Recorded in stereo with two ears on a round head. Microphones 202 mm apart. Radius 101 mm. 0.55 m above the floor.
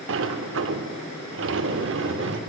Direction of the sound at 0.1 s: 60° right (ahead or behind).